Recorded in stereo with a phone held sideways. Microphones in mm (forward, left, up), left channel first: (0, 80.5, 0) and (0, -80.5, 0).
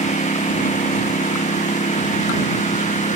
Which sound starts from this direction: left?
A lawn mower, at 0.0 s.